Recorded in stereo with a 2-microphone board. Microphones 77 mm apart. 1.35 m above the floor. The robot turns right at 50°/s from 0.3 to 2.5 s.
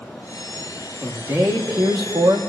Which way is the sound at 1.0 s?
150° right.